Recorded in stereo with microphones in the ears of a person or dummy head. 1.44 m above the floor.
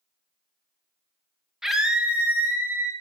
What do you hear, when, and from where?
1.6 s a scream: centre (ahead or behind), 1.3 m; by 2.9 s 15° right (ahead or behind), 3 m